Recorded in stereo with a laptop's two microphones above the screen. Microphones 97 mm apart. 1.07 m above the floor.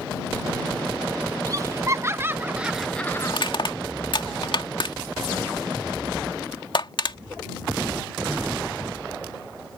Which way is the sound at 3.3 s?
60° left (ahead or behind).